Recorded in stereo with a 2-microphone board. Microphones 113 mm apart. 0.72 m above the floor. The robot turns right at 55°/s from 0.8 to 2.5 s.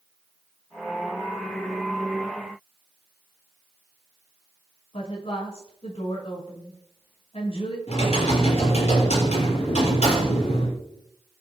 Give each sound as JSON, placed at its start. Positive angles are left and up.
{"t": 4.9, "sound": "a woman speaking", "side_deg": 65, "distance_m": 5.0}
{"t": 7.9, "sound": "typing on a keyboard", "side_deg": 70, "distance_m": 6.5}